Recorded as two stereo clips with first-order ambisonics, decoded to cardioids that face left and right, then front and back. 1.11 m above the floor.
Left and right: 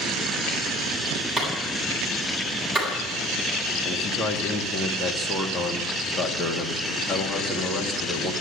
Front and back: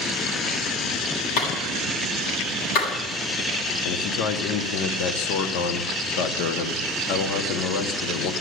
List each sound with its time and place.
1.4 s a clap: straight ahead, 8 m
3.8 s a man speaking: 15° left, 1.8 m